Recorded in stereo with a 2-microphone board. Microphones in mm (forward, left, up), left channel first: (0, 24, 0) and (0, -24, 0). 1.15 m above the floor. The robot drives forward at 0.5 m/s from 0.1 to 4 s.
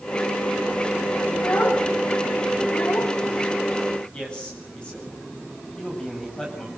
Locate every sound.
1.3 s a child speaking: 45° left (ahead or behind), 3 m; by 3.1 s 65° left (ahead or behind), 2.5 m
4.1 s a man speaking: 20° left (ahead or behind), 8.5 m